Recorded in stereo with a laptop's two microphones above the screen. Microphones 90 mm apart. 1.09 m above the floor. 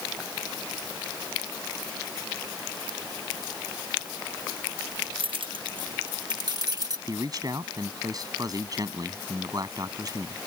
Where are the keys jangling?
80° right; by 7.0 s 50° right (ahead or behind).